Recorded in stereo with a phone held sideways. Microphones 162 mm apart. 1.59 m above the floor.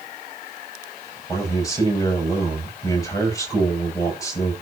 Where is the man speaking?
20° left (ahead or behind), 8 m.